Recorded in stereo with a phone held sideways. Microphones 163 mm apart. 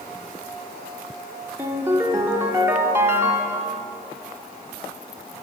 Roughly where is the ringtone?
Centre.